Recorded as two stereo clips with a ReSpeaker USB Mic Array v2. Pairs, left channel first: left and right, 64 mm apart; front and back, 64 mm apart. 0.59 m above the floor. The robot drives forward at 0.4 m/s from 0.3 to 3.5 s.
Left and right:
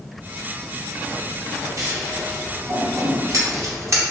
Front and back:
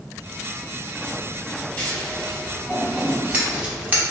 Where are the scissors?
65° right, 0.9 m; by 4.0 s 120° right, 0.9 m.